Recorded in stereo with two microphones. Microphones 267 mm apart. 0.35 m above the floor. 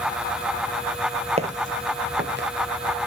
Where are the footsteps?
25° right (ahead or behind), 0.8 m; by 2.5 s 45° right (ahead or behind), 1.4 m.